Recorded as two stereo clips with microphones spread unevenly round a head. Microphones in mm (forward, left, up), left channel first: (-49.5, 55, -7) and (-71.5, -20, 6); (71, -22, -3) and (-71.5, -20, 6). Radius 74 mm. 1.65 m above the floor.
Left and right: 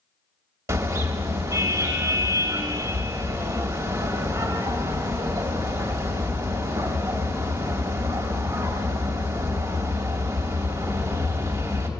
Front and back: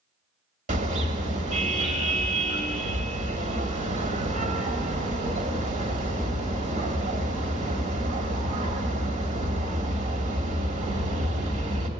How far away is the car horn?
About 2.5 m.